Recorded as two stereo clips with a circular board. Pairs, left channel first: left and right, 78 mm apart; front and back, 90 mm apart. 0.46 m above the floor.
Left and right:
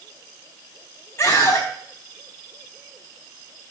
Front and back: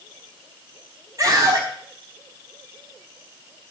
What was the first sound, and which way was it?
A scream, 145° left.